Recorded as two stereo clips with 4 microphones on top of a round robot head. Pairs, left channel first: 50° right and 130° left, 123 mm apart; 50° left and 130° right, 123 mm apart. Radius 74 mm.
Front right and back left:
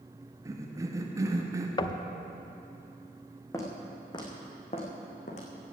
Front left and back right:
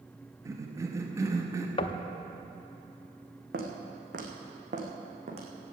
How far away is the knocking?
About 0.7 m.